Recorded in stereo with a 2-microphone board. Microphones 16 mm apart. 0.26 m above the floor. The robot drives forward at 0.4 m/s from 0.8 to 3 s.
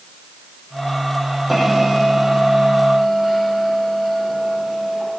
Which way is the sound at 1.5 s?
5° right (ahead or behind).